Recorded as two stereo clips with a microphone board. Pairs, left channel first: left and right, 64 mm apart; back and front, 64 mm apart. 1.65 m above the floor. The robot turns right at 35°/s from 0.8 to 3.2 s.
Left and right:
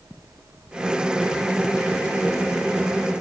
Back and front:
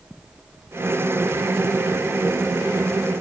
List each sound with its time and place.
Only background noise.